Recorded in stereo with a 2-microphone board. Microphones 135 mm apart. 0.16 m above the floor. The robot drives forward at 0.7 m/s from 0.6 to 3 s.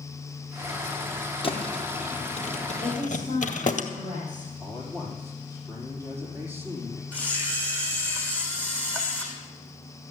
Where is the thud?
40° left (ahead or behind), 1.9 m; by 3.8 s 70° left (ahead or behind), 1.3 m.